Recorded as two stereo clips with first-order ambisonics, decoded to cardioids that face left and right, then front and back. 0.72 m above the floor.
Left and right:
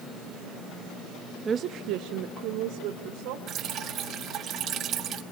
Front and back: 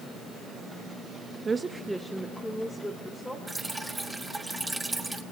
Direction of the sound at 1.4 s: 135° right.